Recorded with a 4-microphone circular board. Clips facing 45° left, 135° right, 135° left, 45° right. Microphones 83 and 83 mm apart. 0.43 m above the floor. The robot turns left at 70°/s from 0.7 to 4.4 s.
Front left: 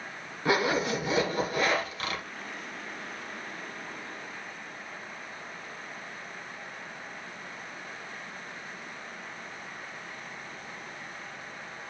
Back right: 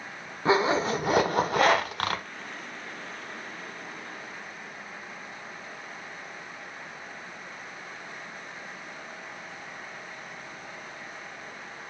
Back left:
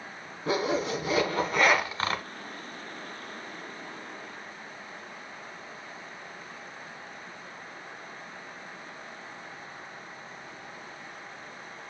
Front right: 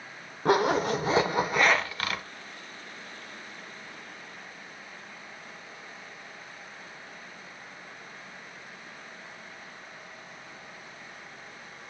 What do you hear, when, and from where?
0.5 s a zipper: 70° right, 0.7 m; by 2.2 s straight behind, 0.7 m